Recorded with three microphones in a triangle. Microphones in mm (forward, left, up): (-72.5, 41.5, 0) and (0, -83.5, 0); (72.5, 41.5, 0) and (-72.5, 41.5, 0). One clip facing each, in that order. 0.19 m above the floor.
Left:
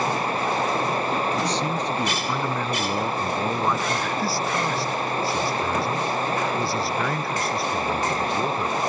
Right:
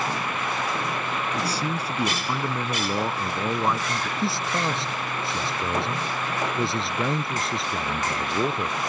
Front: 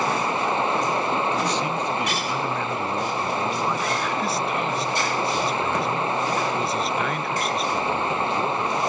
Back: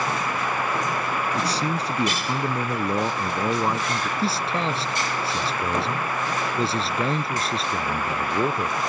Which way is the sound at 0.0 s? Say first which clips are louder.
Left 4 dB, front 3 dB; 65° left.